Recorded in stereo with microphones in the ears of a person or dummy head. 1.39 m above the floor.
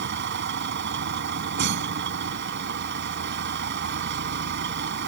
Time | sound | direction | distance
0.0 | a vehicle | 65° right (ahead or behind) | ?